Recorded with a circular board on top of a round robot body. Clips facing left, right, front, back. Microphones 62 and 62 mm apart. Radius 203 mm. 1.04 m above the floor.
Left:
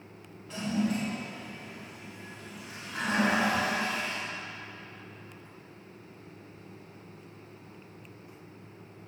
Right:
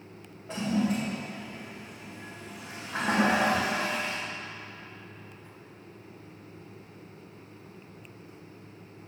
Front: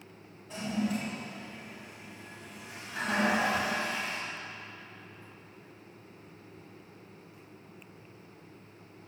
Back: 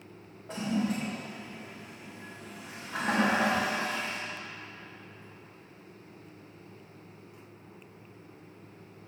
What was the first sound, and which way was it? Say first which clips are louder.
A toilet flushing: right 2 dB, back 2 dB; 150° right.